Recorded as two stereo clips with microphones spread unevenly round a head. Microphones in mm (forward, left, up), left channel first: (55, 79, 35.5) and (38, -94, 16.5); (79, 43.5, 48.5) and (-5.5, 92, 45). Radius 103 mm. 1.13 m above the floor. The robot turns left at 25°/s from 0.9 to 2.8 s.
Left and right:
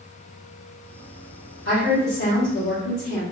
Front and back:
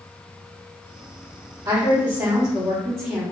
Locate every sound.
1.6 s a woman speaking: 110° left, 1.3 m; by 3.2 s 80° left, 1.3 m